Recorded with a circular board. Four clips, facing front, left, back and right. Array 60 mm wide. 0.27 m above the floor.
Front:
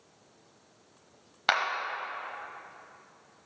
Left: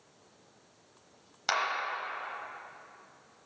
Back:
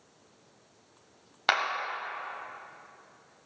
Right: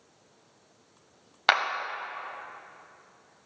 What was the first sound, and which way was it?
A clap, 90° right.